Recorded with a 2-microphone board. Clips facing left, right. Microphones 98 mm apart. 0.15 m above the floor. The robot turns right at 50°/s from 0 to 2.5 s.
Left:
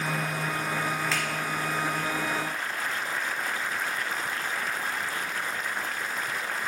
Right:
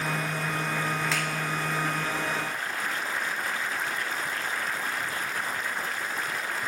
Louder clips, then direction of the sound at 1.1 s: Even; centre (ahead or behind).